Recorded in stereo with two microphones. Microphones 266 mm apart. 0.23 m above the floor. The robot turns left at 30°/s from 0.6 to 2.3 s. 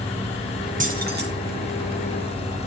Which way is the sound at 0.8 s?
30° right (ahead or behind).